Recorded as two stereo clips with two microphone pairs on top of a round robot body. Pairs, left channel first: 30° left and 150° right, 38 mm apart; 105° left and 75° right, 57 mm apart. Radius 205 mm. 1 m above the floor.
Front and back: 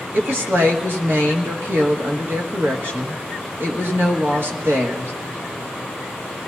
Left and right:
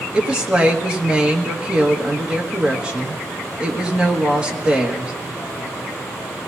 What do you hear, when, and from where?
0.1 s a woman speaking: 145° right, 1.9 m